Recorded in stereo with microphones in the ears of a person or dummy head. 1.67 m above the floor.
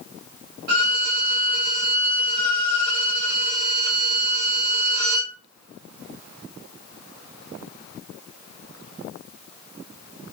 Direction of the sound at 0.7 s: 55° right (ahead or behind).